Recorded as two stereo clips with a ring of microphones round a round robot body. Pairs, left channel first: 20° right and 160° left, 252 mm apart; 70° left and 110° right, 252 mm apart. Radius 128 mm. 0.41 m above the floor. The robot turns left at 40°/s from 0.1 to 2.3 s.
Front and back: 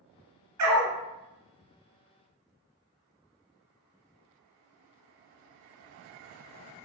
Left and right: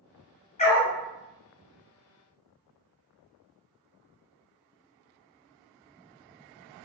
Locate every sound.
0.6 s a dog barking: 135° left, 1.5 m; by 0.9 s 120° left, 1.5 m